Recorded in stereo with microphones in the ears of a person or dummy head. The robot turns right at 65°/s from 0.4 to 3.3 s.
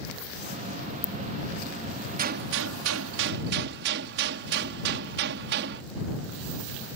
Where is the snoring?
I don't hear snoring.